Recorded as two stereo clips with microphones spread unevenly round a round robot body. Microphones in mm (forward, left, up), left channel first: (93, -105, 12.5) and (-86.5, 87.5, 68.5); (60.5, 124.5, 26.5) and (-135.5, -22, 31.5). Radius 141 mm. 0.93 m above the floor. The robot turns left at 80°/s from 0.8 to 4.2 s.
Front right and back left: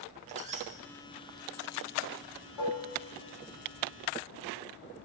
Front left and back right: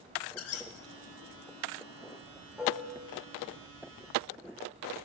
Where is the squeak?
65° left, 0.7 m.